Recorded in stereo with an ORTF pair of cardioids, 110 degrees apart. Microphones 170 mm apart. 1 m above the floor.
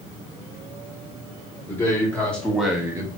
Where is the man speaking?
15° left, 2.5 m; by 3.1 s 30° right, 0.8 m.